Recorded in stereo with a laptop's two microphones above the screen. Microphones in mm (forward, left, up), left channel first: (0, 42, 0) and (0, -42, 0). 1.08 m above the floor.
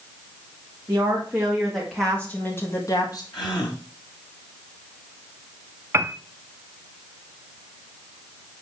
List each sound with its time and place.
0.9 s a woman speaking: 25° right (ahead or behind), 1.8 m; by 3.2 s 50° left (ahead or behind), 1.5 m
3.3 s a gasp: 65° left (ahead or behind), 1.7 m
5.9 s a piano: 30° right (ahead or behind), 0.6 m